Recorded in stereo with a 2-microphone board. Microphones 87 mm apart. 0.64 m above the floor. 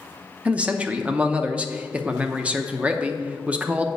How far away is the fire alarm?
No fire alarm in this recording.